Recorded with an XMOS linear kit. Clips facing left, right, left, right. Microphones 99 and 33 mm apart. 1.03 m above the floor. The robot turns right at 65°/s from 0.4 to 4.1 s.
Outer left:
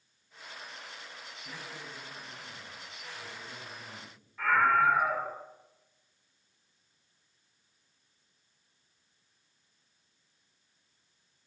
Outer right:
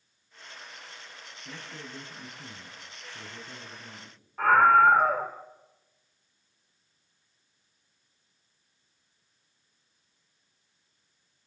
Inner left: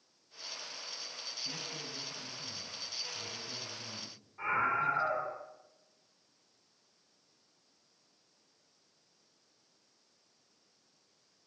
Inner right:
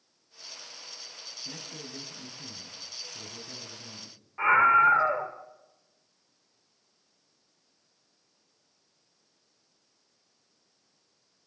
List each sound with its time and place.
1.4 s a man speaking: 160° right, 6.5 m; by 5.2 s 10° left, 6.5 m
4.4 s a scream: 45° right (ahead or behind), 2.5 m